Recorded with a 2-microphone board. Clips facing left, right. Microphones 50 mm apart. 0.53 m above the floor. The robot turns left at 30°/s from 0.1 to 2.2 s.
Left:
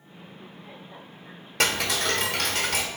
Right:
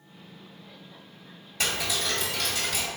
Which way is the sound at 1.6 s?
65° left (ahead or behind).